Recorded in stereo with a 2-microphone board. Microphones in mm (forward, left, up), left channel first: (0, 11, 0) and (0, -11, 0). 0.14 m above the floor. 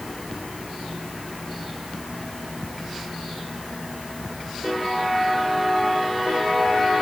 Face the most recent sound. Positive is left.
No sound to turn to.